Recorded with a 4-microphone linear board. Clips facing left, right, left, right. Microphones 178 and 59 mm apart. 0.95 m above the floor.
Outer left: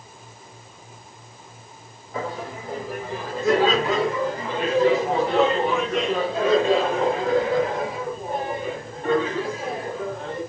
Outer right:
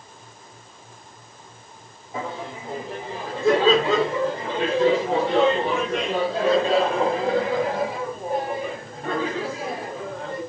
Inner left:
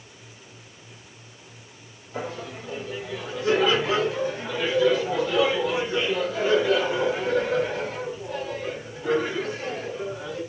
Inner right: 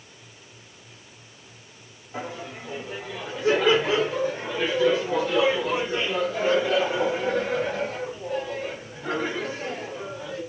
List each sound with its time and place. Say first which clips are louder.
2.1 s laughter: outer left 1 dB, inner left 1 dB; 25° right (ahead or behind), 3 m; by 10.4 s 40° right (ahead or behind), 9 m